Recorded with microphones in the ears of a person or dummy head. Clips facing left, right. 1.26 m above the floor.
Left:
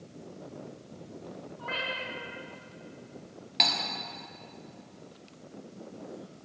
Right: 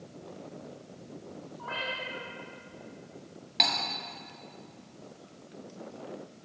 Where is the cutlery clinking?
5° left (ahead or behind), 0.8 m.